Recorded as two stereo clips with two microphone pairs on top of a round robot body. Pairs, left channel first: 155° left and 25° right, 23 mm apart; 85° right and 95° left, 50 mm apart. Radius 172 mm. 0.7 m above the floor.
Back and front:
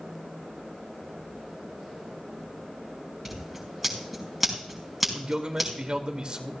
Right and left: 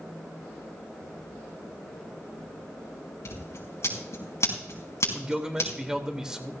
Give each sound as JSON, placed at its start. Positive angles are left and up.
{"t": 3.2, "sound": "scissors", "azimuth_deg": -110, "distance_m": 5.0}
{"t": 5.1, "sound": "a man speaking", "azimuth_deg": 20, "distance_m": 2.5}